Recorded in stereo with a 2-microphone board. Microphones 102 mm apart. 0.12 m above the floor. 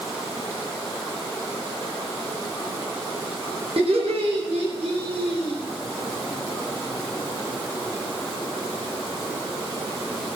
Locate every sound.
3.8 s laughter: 75° right (ahead or behind), 6 m